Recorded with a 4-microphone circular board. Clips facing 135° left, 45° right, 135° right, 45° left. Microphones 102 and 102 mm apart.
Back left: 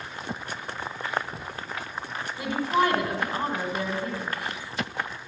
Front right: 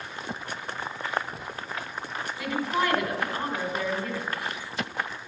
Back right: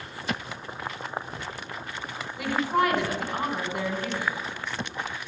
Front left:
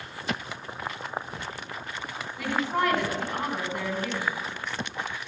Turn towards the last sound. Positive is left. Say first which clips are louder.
# back left 4 dB, back right 2 dB
turn(degrees=155)